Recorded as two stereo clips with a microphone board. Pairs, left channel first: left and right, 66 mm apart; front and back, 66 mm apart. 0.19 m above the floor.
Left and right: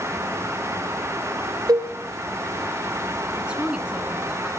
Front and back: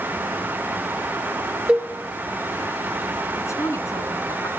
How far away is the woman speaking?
About 2.5 m.